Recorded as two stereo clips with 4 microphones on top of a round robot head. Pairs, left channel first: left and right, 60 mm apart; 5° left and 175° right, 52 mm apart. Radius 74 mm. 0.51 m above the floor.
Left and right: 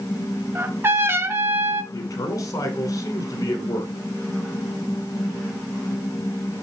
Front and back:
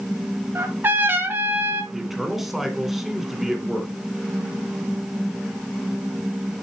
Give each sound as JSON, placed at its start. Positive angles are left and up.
{"t": 0.6, "sound": "a trumpet", "azimuth_deg": -135, "distance_m": 1.3}
{"t": 1.9, "sound": "a man speaking", "azimuth_deg": 95, "distance_m": 2.5}